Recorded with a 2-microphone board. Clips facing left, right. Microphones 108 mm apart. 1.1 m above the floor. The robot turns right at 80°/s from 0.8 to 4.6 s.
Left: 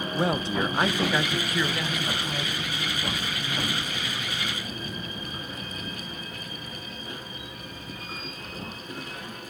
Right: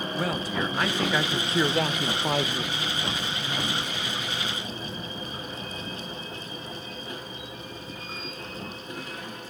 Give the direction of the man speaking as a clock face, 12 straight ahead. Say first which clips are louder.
Left 4 dB; 7 o'clock.